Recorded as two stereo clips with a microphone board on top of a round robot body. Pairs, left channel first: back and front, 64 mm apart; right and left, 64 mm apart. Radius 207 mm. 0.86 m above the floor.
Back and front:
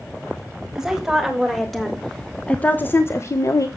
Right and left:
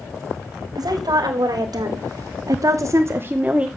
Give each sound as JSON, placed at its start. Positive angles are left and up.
{"t": 0.8, "sound": "a woman speaking", "azimuth_deg": 80, "distance_m": 1.7}